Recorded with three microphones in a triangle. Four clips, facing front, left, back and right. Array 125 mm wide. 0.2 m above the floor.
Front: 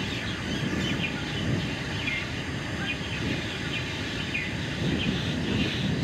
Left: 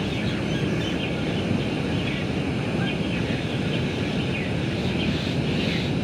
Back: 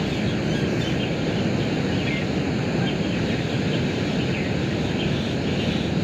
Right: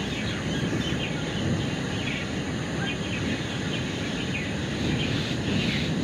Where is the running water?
160° left.